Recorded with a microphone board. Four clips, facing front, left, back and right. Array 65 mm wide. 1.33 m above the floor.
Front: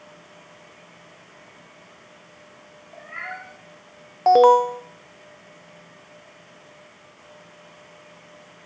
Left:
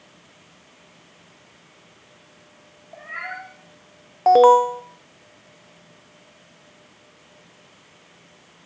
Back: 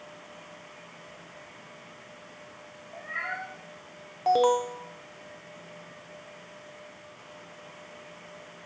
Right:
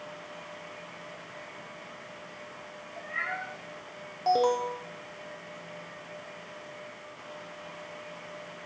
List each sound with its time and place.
2.9 s a cat meowing: 90° left, 10 m
4.3 s an alarm: 50° left, 0.7 m